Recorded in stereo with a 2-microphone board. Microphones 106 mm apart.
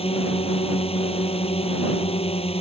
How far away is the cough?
No cough in this recording.